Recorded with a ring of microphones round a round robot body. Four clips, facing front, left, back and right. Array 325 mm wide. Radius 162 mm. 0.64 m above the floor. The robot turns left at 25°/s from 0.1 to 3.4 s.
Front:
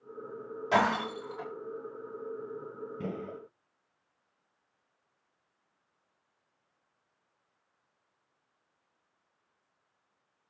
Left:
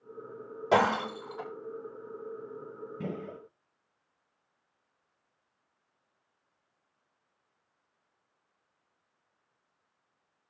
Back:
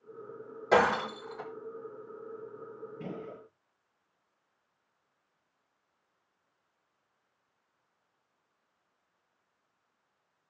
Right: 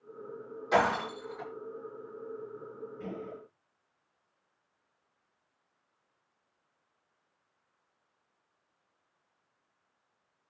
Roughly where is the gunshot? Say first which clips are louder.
Left 3 dB, front 3 dB; ahead left.